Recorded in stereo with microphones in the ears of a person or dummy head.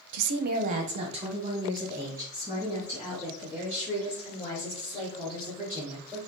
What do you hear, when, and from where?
0.1 s a woman speaking: 70° right (ahead or behind), 0.5 m; by 6.2 s 5° right (ahead or behind), 4.5 m